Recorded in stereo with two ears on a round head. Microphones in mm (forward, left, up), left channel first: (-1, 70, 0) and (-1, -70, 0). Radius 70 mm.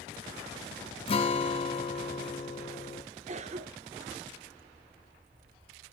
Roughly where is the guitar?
Left.